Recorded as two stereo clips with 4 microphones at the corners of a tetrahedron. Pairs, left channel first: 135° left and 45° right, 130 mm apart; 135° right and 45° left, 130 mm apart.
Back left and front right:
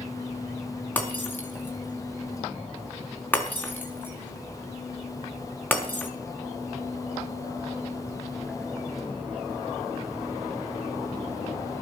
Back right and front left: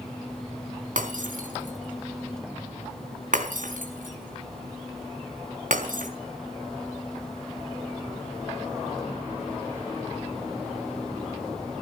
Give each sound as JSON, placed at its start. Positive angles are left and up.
{"t": 1.0, "sound": "breaking glass", "azimuth_deg": 60, "distance_m": 4.5}